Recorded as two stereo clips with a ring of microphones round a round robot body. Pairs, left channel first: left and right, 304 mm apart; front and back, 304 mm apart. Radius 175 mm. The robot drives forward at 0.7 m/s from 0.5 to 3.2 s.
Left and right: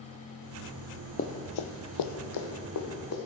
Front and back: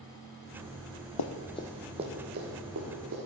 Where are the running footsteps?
25° left, 0.7 m; by 3.1 s 125° left, 2.5 m.